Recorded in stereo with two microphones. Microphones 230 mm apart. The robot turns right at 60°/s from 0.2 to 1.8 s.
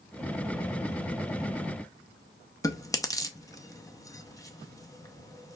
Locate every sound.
2.6 s chewing: 15° left (ahead or behind), 0.6 m